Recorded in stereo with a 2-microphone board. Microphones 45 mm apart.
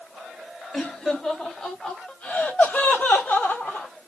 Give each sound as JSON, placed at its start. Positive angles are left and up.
{"t": 0.7, "sound": "laughter", "side_deg": 10, "distance_m": 1.8}